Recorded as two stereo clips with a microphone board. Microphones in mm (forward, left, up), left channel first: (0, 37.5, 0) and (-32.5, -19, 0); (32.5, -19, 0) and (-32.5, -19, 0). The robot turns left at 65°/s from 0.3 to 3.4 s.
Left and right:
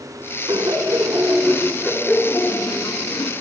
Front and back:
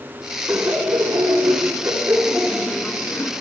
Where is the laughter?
120° right, 2.5 m; by 3.3 s 55° left, 2.5 m.